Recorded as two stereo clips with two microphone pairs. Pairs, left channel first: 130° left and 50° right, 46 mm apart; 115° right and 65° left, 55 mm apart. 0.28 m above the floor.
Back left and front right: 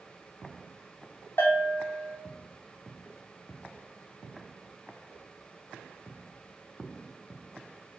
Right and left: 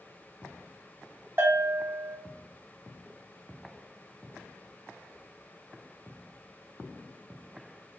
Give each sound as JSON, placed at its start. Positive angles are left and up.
{"t": 1.4, "sound": "a bell", "azimuth_deg": 105, "distance_m": 0.8}